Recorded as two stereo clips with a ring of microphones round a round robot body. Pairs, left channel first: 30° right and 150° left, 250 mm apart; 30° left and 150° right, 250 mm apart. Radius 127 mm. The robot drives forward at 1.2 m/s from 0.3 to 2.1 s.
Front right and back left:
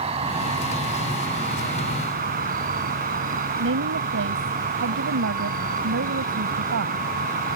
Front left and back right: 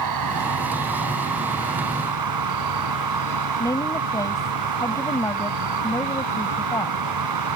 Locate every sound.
0.0 s an insect: 140° right; by 7.6 s 150° right
3.6 s a woman speaking: 110° left